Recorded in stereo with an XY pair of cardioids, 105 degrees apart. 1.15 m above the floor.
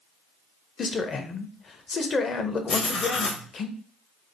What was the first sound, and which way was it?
A man speaking, 40° left.